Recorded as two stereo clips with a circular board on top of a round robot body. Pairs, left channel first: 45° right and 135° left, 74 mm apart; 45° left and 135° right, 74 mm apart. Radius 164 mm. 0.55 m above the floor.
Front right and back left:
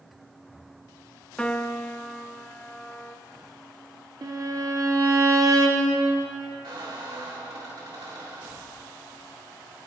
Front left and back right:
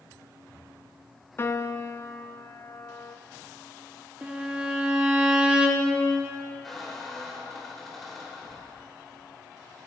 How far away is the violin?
About 2 m.